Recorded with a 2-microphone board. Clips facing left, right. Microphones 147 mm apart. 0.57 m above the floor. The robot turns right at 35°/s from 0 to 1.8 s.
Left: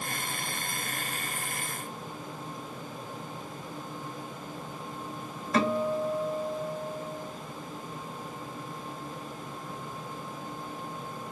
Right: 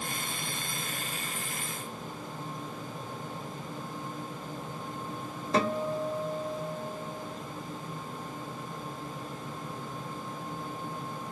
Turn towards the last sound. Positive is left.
turn(degrees=-25)  # may be behind; listen again after turning